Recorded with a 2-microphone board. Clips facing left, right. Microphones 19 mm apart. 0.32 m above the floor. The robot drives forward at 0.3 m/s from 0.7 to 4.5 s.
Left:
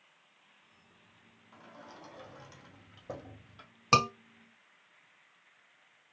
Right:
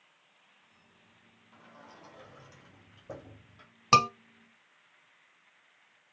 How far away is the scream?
About 1.2 m.